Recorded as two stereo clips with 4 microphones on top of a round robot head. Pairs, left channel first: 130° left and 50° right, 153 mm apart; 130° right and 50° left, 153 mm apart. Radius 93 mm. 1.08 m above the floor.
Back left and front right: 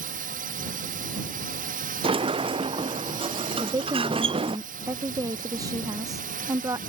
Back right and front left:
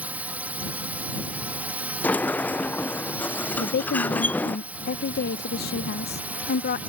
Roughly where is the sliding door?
Ahead right.